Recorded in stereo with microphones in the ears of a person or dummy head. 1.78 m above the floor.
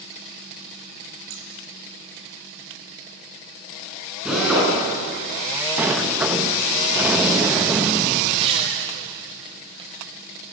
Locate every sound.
1.3 s scissors: 60° right (ahead or behind), 3 m
4.2 s a drill: 5° right (ahead or behind), 10 m
5.8 s a sliding door: 5° right (ahead or behind), 1.2 m
8.3 s tearing paper: 30° right (ahead or behind), 4.5 m